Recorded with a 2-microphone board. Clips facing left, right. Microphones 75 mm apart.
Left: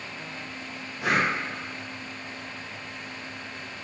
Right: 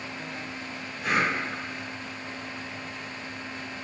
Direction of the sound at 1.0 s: 70° left (ahead or behind).